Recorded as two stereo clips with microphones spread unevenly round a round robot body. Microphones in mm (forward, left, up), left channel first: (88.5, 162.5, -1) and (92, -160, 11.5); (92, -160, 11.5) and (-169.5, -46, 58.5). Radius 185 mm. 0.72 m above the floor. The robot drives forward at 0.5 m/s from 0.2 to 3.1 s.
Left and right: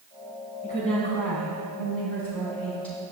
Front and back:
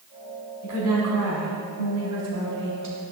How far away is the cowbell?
No cowbell in this recording.